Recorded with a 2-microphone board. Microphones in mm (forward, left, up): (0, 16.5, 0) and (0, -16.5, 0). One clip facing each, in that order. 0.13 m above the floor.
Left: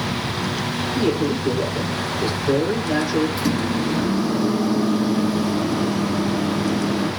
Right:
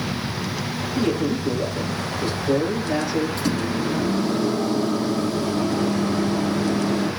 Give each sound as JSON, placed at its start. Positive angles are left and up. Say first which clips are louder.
{"t": 0.9, "sound": "a man speaking", "louder": "left 1 dB", "side_deg": 30, "distance_m": 5.5}
{"t": 3.4, "sound": "a microwave", "louder": "left 2 dB", "side_deg": 10, "distance_m": 4.0}